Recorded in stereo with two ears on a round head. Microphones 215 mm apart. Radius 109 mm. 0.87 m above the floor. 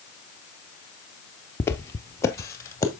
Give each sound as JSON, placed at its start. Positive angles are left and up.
{"t": 1.6, "sound": "footsteps", "side_deg": 10, "distance_m": 1.1}